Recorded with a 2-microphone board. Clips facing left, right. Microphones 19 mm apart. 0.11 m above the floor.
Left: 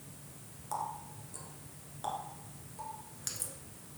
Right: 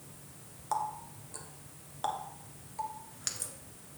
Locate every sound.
0.7 s a running tap: 25° right (ahead or behind), 1.1 m